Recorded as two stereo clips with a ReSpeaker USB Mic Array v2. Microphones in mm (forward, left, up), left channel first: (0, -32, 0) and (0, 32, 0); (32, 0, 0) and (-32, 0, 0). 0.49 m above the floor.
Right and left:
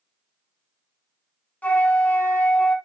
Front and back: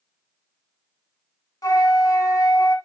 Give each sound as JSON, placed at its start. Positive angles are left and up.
{"t": 1.6, "sound": "a flute", "azimuth_deg": -25, "distance_m": 1.1}